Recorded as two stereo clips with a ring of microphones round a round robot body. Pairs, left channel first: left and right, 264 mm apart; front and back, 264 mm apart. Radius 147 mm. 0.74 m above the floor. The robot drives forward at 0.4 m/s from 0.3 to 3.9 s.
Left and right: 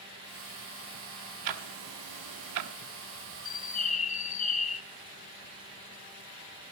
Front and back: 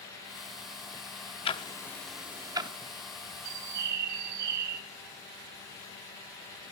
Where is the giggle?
No giggle in this recording.